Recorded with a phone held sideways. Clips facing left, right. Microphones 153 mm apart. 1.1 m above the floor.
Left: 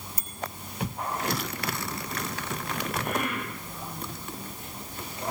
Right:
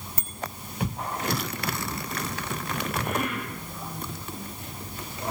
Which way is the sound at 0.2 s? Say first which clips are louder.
Right 3 dB; 55° right (ahead or behind).